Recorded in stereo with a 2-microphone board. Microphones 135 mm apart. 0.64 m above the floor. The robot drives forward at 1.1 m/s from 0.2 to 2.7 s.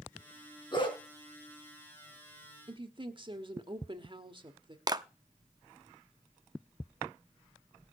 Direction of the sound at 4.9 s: 30° right (ahead or behind).